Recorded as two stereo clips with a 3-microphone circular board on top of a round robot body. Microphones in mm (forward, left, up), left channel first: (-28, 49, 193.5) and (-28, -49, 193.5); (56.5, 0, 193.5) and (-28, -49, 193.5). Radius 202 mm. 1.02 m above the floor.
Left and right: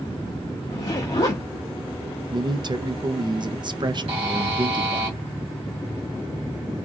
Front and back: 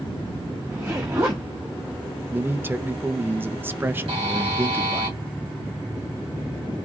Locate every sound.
0.7 s a zipper: 140° left, 0.5 m
2.3 s a man speaking: 85° right, 0.8 m
4.1 s a buzzer: 120° right, 1.8 m